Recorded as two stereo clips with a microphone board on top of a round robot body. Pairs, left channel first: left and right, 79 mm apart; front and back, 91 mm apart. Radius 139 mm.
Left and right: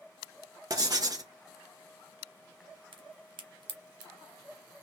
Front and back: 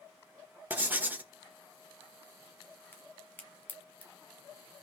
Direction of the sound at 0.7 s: 115° right.